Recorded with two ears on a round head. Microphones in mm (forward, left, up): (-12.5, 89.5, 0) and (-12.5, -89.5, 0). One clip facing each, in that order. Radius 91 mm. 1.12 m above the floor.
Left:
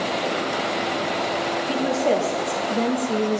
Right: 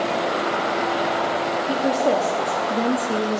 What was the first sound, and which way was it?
A woman speaking, 15° right (ahead or behind).